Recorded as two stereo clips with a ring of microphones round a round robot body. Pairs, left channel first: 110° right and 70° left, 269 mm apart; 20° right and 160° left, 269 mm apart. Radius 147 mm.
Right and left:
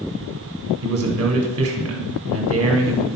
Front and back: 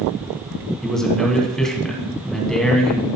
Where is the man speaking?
65° left, 1.7 m.